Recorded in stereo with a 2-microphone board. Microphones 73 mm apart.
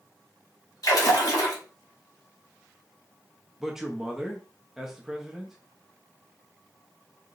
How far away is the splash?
About 1.7 m.